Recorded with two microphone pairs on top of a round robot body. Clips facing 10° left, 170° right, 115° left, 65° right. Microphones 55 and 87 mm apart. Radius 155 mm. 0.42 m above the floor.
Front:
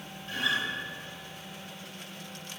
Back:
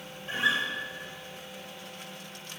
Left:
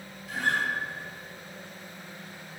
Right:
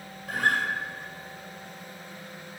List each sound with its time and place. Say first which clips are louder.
0.3 s a guitar: back 3 dB, right 2 dB; 105° right, 2.0 m